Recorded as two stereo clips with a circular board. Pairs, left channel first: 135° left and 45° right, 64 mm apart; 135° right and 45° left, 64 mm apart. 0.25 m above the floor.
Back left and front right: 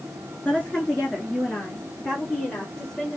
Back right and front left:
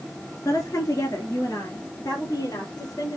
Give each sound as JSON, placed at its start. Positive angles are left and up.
{"t": 0.5, "sound": "a woman speaking", "azimuth_deg": -155, "distance_m": 2.5}